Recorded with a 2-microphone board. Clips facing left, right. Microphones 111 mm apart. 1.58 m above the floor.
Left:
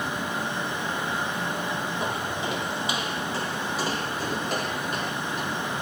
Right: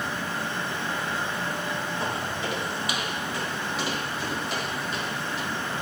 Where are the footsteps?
20° left (ahead or behind), 3.5 m; by 5.5 s 55° left (ahead or behind), 3.5 m.